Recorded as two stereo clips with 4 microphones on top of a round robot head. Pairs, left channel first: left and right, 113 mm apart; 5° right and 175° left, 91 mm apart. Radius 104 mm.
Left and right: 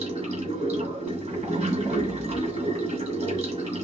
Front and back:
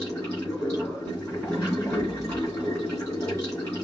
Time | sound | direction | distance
0.0 | running water | 125° right | 2.5 m